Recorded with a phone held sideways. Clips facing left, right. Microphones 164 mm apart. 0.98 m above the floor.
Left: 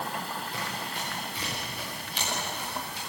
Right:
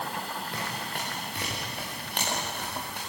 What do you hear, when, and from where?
0.5 s running footsteps: 65° right (ahead or behind), 7.5 m; by 3.0 s 60° right (ahead or behind), 8.5 m